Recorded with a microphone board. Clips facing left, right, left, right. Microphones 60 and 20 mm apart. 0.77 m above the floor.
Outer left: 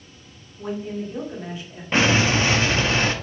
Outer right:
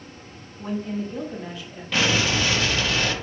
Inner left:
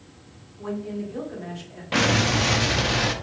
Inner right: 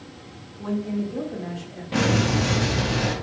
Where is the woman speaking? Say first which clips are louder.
Even, inner right 4 dB; 20° left (ahead or behind), 2 m.